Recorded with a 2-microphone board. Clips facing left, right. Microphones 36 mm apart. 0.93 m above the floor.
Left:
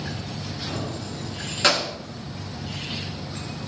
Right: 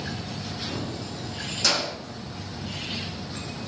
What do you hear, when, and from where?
0.7 s keys jangling: 80° left, 1.2 m; by 1.9 s 20° left (ahead or behind), 0.8 m